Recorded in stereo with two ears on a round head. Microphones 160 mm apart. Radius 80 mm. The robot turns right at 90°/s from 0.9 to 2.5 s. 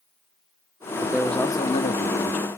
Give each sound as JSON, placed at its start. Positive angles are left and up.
{"t": 1.0, "sound": "a man speaking", "azimuth_deg": -20, "distance_m": 0.9}